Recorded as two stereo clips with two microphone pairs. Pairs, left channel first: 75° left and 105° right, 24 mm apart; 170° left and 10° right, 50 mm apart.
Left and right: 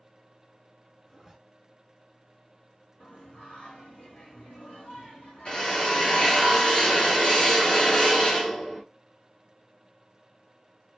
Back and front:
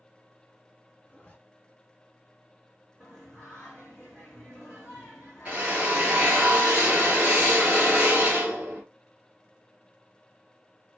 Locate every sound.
1.1 s a zipper: 170° left, 1.0 m
3.0 s singing: 95° left, 1.1 m
5.5 s a drill: 50° left, 1.5 m